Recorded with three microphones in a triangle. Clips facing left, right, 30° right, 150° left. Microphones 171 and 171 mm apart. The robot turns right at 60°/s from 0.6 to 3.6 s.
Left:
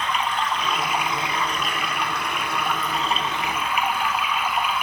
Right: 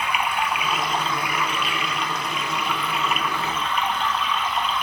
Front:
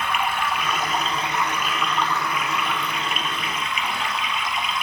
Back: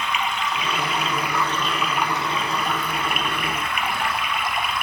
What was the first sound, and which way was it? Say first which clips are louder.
Running water: even, front 1 dB; 10° right.